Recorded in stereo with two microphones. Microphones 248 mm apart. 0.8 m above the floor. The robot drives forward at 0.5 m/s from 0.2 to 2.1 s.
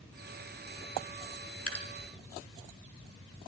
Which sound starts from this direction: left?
Dripping, at 1.7 s.